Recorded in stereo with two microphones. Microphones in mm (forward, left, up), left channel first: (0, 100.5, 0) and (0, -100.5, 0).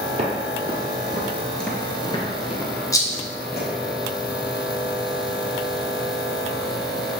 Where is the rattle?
15° left (ahead or behind), 0.6 m.